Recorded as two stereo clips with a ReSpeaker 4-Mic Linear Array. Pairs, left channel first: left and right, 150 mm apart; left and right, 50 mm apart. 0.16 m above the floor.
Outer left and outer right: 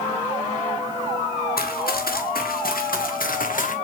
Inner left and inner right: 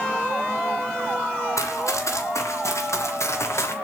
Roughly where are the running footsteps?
Left.